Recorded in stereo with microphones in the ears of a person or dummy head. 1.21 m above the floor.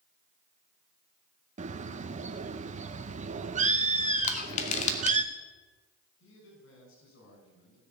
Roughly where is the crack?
No crack in this recording.